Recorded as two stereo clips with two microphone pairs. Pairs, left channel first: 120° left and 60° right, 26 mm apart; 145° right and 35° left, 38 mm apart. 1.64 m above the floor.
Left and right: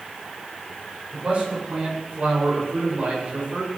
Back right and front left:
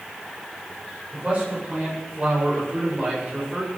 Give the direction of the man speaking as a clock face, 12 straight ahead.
1 o'clock.